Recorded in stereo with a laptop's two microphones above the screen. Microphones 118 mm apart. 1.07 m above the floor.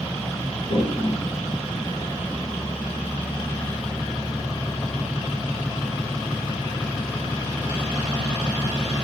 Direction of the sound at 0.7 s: 70° left (ahead or behind).